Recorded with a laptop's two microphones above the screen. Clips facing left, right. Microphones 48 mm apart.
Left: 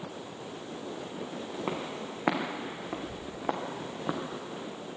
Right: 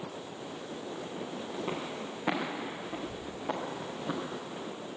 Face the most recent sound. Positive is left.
turn(degrees=60)  # may be behind; listen again after turning